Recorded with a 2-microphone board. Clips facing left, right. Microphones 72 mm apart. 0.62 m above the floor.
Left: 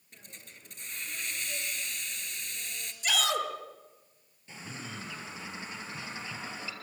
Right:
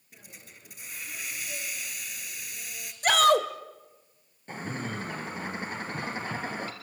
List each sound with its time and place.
0.1 s a hiss: 10° right (ahead or behind), 2.5 m
3.0 s a shout: 60° right (ahead or behind), 2 m
4.5 s a bird: 55° right (ahead or behind), 2 m